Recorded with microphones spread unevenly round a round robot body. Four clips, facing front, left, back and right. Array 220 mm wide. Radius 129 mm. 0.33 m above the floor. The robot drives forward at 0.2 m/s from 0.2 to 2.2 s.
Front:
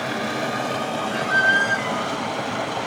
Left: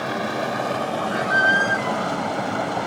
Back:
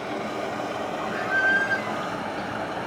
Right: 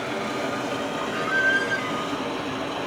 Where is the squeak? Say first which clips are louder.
Left 4 dB, front 4 dB; 55° left, 0.5 m; by 2.0 s 80° left, 0.5 m.